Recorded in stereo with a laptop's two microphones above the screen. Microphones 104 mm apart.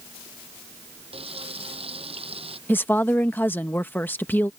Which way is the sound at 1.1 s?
70° right (ahead or behind).